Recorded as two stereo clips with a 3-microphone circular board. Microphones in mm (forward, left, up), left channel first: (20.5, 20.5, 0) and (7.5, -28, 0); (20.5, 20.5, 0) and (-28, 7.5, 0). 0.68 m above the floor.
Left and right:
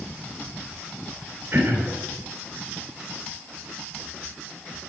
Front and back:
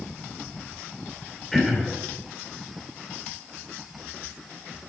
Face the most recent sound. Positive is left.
turn(degrees=-75)